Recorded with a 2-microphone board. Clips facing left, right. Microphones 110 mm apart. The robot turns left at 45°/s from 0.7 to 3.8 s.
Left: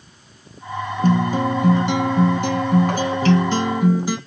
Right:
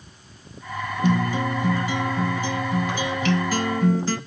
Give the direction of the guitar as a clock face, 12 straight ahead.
7 o'clock.